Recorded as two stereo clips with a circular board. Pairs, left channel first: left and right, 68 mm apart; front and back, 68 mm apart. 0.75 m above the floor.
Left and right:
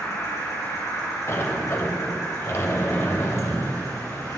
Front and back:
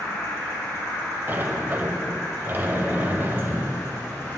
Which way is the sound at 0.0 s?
50° left.